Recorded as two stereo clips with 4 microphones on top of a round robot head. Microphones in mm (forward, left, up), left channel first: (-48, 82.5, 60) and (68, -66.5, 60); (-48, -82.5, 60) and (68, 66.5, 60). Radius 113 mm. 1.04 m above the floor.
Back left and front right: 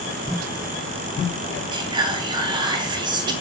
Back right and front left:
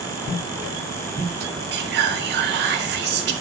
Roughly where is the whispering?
Ahead.